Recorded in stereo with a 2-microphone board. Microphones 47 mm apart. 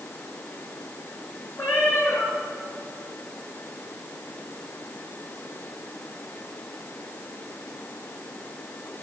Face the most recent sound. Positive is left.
turn(degrees=55)  # may be behind; listen again after turning